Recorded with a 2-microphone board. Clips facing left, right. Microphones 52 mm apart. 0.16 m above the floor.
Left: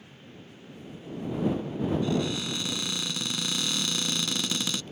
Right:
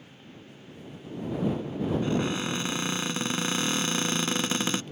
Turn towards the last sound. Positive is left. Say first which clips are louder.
# right 1 dB
turn(degrees=-35)  # may be behind; listen again after turning